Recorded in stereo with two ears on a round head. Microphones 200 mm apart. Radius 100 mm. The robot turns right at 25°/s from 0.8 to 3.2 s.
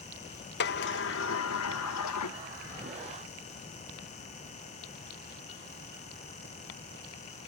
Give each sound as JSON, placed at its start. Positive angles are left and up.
{"t": 0.6, "sound": "a sliding door", "azimuth_deg": 50, "distance_m": 0.8}